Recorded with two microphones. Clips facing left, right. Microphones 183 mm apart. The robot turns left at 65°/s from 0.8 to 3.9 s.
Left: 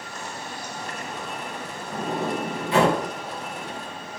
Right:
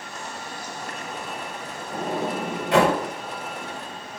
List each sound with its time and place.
1.9 s a sliding door: 45° right (ahead or behind), 1.3 m; by 3.0 s 65° right (ahead or behind), 1.3 m